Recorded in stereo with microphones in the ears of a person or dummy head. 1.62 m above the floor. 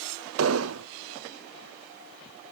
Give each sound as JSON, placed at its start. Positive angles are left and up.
{"t": 0.4, "sound": "an explosion", "side_deg": -75, "distance_m": 0.8}